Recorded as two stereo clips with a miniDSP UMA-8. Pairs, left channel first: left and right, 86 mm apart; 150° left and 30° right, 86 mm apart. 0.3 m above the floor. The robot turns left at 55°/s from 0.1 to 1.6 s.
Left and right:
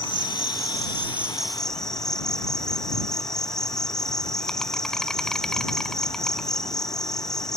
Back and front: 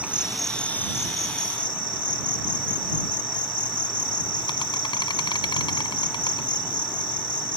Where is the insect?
105° right; by 7.6 s 175° left.